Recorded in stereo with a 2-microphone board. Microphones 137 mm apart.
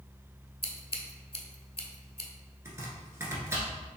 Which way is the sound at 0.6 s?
45° left (ahead or behind).